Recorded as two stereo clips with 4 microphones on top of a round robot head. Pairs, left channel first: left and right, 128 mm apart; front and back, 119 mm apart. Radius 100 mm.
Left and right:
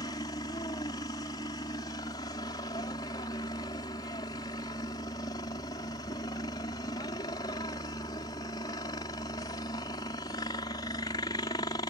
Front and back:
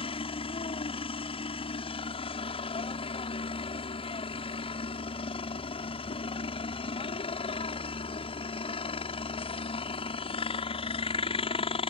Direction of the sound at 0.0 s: 30° left.